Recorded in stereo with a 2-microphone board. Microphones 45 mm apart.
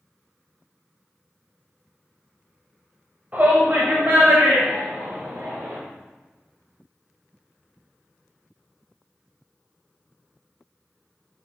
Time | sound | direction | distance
3.3 | a shout | 35° right (ahead or behind) | 1.8 m